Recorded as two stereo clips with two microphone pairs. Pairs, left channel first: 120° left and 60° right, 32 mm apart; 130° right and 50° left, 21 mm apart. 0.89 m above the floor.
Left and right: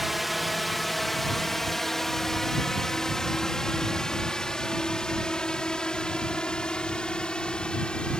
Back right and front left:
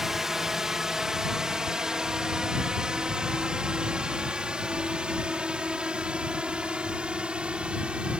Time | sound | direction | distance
0.0 | a drone | 20° left | ?